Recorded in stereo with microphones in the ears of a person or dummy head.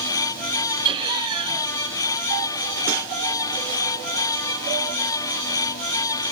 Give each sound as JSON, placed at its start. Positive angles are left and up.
{"t": 0.8, "sound": "laughter", "side_deg": -25, "distance_m": 6.5}